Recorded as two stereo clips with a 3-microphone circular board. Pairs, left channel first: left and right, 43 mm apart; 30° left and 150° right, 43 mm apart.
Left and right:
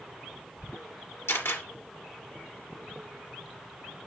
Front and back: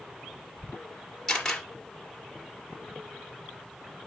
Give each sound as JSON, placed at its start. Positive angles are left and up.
{"t": 1.3, "sound": "a camera shutter", "azimuth_deg": 110, "distance_m": 3.0}